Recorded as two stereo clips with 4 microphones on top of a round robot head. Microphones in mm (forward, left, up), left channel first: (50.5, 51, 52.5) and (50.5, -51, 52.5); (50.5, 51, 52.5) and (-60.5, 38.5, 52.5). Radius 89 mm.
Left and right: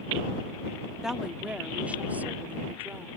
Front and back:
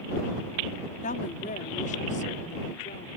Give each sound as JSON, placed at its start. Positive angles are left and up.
{"t": 1.0, "sound": "a woman speaking", "azimuth_deg": -5}